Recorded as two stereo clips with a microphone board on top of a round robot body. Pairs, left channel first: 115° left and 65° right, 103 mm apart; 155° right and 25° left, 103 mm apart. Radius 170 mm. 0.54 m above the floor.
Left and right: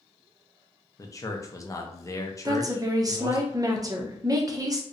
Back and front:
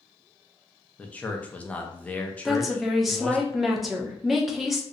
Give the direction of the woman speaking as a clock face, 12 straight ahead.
2 o'clock.